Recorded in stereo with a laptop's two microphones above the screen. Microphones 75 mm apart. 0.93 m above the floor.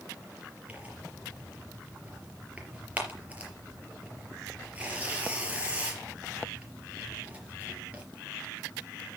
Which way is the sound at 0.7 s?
20° right (ahead or behind).